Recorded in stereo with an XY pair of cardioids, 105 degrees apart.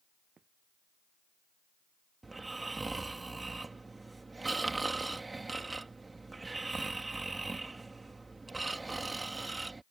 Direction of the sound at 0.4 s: 40° right.